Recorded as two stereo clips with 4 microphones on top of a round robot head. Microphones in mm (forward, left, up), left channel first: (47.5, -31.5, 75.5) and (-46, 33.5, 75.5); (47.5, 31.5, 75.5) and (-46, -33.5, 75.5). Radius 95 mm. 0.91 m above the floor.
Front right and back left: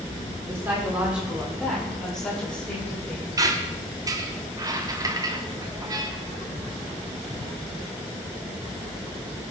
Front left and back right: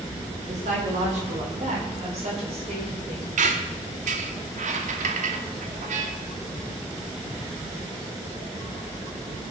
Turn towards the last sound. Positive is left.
turn(degrees=-155)